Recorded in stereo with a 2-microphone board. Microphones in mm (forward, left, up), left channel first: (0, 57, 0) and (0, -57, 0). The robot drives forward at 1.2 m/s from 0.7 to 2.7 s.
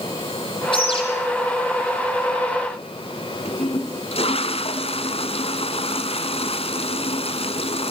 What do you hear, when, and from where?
0.7 s a bird: 50° left (ahead or behind), 8.5 m
3.5 s a toilet flushing: 60° left (ahead or behind), 1.5 m